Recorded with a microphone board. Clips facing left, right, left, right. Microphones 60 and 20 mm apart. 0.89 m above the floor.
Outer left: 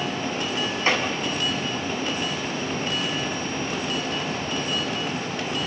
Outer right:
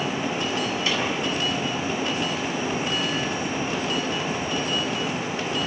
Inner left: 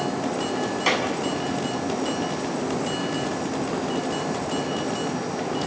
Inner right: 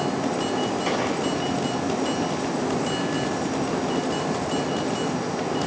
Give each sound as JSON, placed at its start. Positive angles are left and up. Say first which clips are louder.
{"t": 0.9, "sound": "a clap", "louder": "outer left 5 dB, inner left 5 dB", "side_deg": 35, "distance_m": 7.0}